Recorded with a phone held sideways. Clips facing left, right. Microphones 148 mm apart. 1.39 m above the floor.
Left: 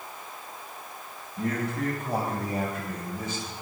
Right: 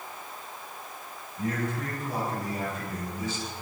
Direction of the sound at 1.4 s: 75° left (ahead or behind).